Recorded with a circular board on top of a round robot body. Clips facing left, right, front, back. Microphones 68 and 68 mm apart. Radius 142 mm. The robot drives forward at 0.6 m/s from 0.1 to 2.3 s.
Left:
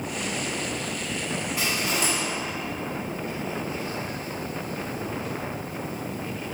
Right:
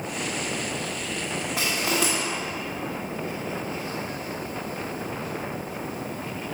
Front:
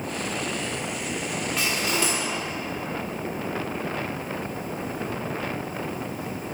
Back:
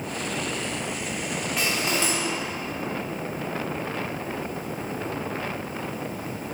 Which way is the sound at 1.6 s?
95° right.